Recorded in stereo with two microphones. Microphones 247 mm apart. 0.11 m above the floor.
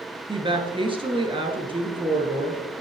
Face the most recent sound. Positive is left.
turn(degrees=-20)  # may be behind; listen again after turning